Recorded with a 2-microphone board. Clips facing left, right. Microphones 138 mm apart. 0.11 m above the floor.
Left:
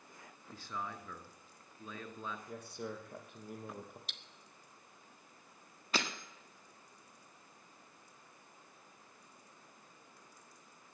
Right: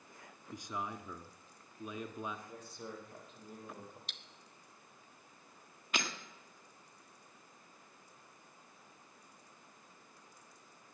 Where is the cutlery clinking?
Centre (ahead or behind), 0.7 m.